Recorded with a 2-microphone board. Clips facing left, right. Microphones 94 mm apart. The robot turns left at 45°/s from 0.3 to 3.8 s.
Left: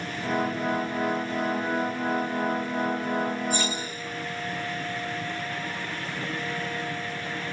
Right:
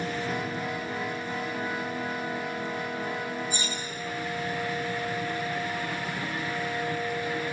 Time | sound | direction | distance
3.5 | cutlery clinking | 80° left | 4.5 m